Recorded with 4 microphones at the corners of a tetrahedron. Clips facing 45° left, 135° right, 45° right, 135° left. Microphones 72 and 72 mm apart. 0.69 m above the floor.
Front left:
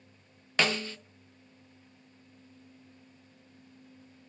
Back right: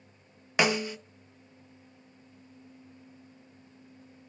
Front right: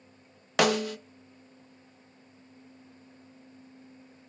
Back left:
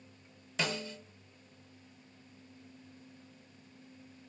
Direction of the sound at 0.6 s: 60° right.